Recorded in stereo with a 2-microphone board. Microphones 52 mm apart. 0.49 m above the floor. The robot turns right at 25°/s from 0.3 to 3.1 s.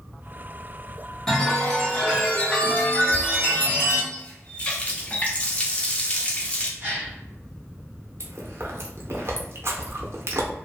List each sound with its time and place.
1.3 s a chime: 15° left, 1.0 m; by 4.0 s 60° left, 1.0 m
4.1 s a running tap: 25° left (ahead or behind), 0.5 m
6.8 s a gasp: 35° right (ahead or behind), 1.3 m
8.2 s chewing: 55° right (ahead or behind), 0.6 m